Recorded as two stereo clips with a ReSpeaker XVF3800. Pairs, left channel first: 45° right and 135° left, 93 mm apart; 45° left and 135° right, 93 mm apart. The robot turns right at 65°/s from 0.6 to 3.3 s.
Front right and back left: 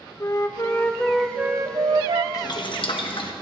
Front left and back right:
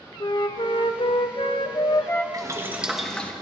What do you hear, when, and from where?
0.2 s a flute: 10° left, 0.8 m; by 2.2 s 115° left, 0.8 m
2.3 s boiling: 90° right, 1.4 m; by 3.3 s 25° right, 1.4 m